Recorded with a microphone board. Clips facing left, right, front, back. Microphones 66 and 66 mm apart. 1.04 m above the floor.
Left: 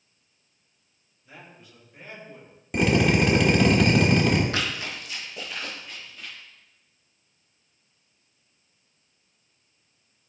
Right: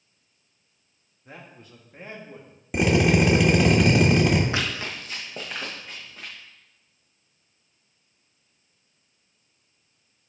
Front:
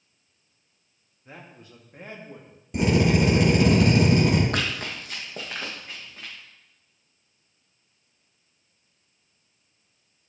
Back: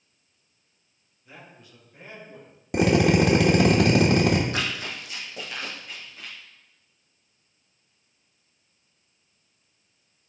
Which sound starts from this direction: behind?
A drill, at 2.7 s.